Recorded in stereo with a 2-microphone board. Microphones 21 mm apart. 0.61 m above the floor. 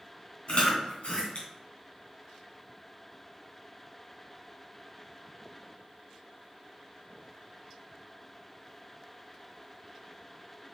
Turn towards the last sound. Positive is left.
turn(degrees=65)  # may be behind; listen again after turning